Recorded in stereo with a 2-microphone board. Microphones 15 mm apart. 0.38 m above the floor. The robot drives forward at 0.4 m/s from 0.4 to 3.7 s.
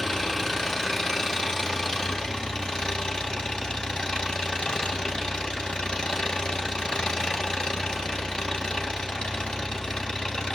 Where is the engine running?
35° left (ahead or behind), 1.6 m; by 10.6 s 80° left, 0.9 m.